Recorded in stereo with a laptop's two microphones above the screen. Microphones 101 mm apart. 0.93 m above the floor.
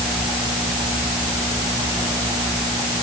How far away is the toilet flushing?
No toilet flushing in this recording.